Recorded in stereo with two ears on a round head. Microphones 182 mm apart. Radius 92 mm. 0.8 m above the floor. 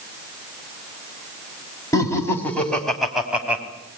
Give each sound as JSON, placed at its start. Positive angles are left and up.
{"t": 1.9, "sound": "laughter", "side_deg": 15, "distance_m": 4.5}